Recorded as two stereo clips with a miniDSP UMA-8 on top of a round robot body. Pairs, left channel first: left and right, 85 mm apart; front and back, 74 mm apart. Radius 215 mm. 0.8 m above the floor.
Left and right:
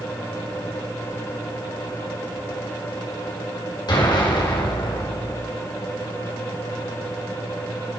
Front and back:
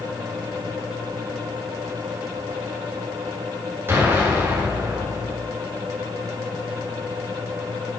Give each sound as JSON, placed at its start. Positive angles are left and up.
{"t": 3.9, "sound": "an explosion", "azimuth_deg": 120, "distance_m": 4.5}